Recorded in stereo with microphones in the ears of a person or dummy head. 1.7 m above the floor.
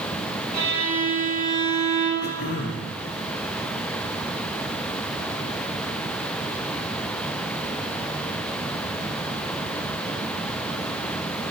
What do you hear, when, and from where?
0.5 s a violin: 45° right (ahead or behind), 1.6 m
2.2 s throat clearing: 45° left (ahead or behind), 0.6 m